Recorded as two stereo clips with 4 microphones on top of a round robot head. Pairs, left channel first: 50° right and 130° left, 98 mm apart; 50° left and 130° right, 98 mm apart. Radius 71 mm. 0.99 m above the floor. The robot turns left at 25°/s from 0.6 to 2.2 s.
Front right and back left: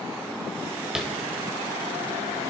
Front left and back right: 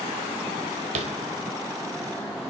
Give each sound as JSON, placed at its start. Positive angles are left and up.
{"t": 0.9, "sound": "tapping", "azimuth_deg": -145, "distance_m": 1.3}